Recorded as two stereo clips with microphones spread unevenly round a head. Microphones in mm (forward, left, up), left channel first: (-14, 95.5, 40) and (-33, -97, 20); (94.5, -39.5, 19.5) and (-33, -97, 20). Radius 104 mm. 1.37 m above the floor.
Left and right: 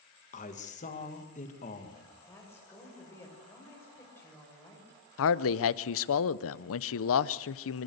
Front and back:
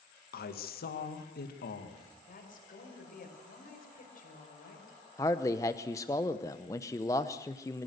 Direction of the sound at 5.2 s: 100° left.